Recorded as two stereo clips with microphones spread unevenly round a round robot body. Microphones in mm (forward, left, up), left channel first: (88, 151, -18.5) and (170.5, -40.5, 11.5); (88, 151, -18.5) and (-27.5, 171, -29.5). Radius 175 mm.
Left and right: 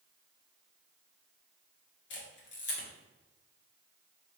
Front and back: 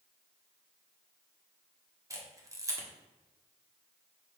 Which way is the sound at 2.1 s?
110° left.